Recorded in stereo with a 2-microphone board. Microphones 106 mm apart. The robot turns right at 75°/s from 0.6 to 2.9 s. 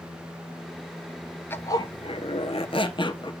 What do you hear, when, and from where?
1.5 s a zipper: 20° left, 1.0 m; by 3.3 s 125° left, 1.0 m